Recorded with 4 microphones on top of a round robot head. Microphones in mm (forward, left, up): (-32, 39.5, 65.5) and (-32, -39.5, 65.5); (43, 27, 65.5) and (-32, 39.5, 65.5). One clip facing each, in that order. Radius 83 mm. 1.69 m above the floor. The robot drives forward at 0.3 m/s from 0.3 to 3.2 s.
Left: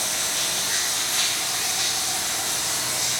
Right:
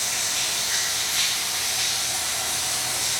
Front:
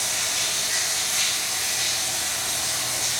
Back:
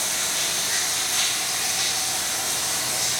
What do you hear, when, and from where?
0.0 s running water: 130° left, 1.0 m; by 3.2 s 155° left, 1.6 m